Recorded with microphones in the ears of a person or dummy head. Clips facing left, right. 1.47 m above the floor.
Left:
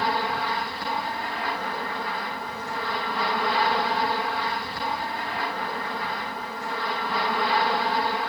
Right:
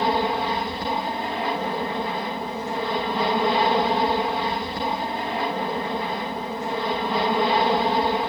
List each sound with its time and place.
0.0 s an aircraft: 20° right (ahead or behind)